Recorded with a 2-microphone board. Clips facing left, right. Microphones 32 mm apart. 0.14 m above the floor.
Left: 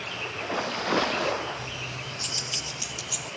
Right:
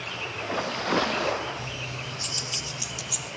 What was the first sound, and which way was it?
Keys jangling, centre (ahead or behind).